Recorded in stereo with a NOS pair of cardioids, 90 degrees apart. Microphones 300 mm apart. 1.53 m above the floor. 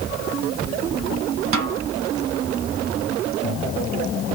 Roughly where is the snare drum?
Ahead right.